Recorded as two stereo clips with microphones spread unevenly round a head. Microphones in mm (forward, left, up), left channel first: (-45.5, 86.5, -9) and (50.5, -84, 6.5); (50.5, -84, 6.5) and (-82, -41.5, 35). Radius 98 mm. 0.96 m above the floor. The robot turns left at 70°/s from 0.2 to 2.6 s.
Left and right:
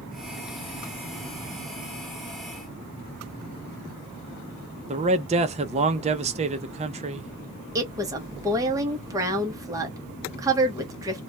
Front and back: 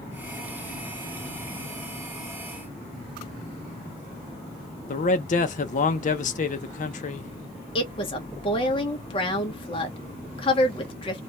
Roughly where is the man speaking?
Ahead.